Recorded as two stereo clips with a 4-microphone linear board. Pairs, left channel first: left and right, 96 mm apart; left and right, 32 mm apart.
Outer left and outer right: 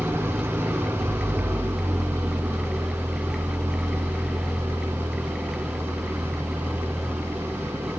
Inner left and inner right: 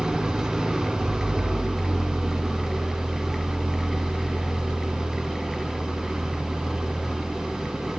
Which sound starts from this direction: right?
An engine running, at 0.0 s.